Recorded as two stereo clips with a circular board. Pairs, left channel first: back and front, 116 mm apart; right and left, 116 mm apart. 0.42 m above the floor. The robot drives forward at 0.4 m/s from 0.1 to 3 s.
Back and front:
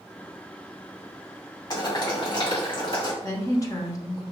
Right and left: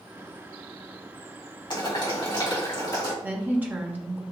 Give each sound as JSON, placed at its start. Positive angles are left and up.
{"t": 1.7, "sound": "boiling", "azimuth_deg": -130, "distance_m": 2.0}
{"t": 3.2, "sound": "a woman speaking", "azimuth_deg": 150, "distance_m": 0.9}